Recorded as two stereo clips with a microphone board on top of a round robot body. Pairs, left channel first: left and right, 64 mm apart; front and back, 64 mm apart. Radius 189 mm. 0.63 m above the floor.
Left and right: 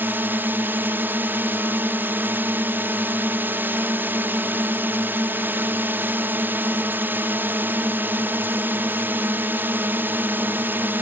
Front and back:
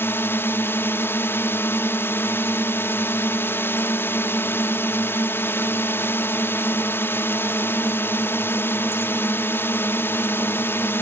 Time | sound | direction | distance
0.0 | a drone | 40° right | ?